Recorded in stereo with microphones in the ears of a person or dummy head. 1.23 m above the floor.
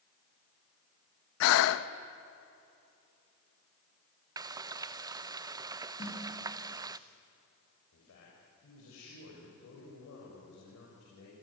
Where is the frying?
25° right (ahead or behind), 0.6 m.